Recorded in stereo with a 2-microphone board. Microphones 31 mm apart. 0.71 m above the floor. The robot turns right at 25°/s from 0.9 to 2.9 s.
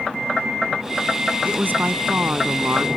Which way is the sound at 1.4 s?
115° right.